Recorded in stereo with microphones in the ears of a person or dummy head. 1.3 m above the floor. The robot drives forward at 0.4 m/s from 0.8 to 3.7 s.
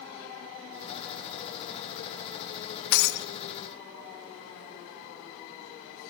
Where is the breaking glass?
65° left (ahead or behind), 1.1 m; by 3.3 s 60° left (ahead or behind), 1.1 m.